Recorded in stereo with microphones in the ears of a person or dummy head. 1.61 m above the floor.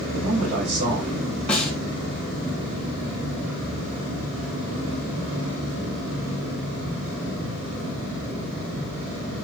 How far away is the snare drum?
About 2.5 m.